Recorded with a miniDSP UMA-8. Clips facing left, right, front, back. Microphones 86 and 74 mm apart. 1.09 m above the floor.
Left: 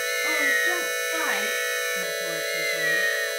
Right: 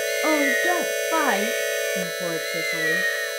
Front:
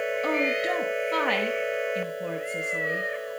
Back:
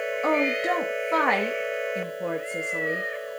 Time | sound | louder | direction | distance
0.2 | a woman speaking | right 6 dB, back 4 dB | 115° right | 1.1 m